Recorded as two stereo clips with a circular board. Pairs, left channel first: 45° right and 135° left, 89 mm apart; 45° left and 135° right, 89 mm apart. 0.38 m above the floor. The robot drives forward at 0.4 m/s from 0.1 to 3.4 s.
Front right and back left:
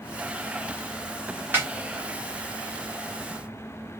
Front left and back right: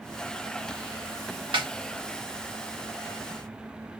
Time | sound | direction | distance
1.5 | a snare drum | 160° right | 2.5 m